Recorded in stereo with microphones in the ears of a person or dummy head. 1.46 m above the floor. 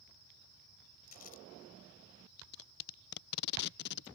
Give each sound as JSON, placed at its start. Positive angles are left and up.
{"t": 1.1, "sound": "crumpling", "side_deg": 45}
{"t": 2.4, "sound": "tape being pulled", "side_deg": 55}